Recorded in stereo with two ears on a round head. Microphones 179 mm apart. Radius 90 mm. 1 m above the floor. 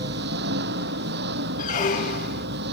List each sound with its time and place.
0.0 s an engine running: 60° right (ahead or behind)
1.6 s a squeak: 40° left (ahead or behind)